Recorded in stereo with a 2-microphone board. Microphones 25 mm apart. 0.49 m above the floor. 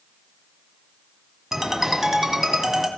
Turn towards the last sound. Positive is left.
turn(degrees=-15)  # may be behind; listen again after turning